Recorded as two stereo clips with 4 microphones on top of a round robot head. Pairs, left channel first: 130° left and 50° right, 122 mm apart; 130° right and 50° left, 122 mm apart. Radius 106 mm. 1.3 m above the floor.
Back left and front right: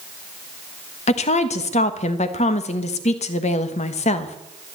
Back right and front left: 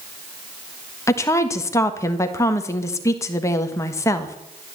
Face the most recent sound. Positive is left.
turn(degrees=165)